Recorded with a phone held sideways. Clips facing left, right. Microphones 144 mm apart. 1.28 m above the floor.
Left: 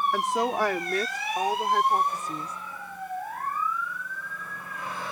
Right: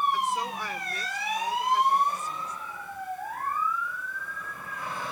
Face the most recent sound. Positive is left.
turn(degrees=70)  # may be behind; listen again after turning